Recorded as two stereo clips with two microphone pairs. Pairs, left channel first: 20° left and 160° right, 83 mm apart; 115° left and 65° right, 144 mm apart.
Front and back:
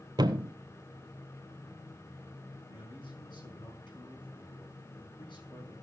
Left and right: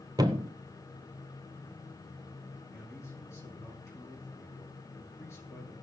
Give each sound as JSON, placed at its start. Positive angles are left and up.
{"t": 0.2, "sound": "a thud", "azimuth_deg": -130, "distance_m": 0.9}
{"t": 2.7, "sound": "a man speaking", "azimuth_deg": 40, "distance_m": 7.0}